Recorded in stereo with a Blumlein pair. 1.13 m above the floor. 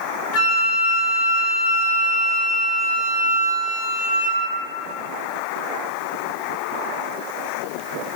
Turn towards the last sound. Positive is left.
turn(degrees=45)